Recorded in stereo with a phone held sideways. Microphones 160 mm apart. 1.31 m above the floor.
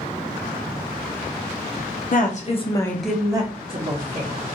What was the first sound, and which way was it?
A woman speaking, 55° left (ahead or behind).